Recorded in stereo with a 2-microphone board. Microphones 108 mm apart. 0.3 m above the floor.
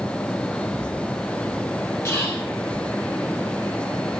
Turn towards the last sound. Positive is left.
turn(degrees=25)  # may be behind; listen again after turning